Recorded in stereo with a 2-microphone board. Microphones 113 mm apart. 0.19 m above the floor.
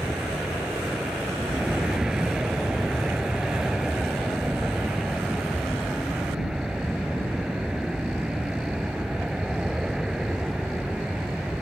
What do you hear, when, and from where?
0.0 s an aircraft: 5° right (ahead or behind)